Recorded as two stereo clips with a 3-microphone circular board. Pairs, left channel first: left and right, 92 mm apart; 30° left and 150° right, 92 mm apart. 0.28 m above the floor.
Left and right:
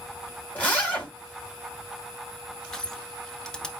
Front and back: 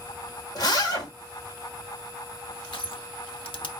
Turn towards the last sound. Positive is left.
turn(degrees=10)